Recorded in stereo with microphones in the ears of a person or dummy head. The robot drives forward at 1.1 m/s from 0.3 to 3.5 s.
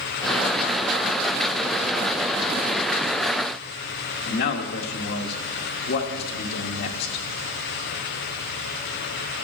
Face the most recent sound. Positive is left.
turn(degrees=55)  # may be behind; listen again after turning